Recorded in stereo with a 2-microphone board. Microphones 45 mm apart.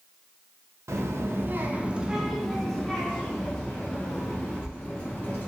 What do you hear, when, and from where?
0.9 s a child speaking: 80° right, 0.6 m; by 5.5 s 30° left (ahead or behind), 2 m